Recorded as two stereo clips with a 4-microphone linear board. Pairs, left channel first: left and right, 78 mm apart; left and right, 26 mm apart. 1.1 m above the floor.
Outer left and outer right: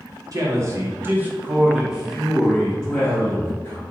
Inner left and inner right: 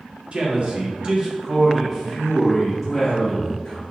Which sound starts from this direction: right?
A man speaking, at 0.3 s.